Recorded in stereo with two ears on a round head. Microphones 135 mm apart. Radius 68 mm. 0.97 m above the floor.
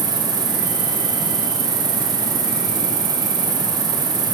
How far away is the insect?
About 3 m.